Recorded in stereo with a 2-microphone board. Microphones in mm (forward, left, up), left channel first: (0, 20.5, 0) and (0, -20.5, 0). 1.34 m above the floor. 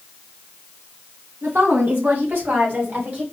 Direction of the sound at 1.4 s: 60° right (ahead or behind).